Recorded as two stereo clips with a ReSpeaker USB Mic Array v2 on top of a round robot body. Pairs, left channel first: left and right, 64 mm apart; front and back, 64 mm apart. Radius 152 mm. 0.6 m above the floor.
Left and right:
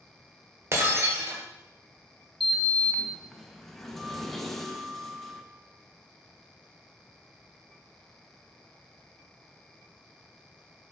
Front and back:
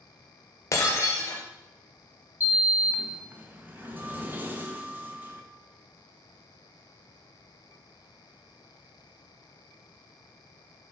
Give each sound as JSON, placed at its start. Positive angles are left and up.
{"t": 0.7, "sound": "breaking glass", "azimuth_deg": -45, "distance_m": 1.4}
{"t": 2.4, "sound": "a sliding door", "azimuth_deg": 175, "distance_m": 1.3}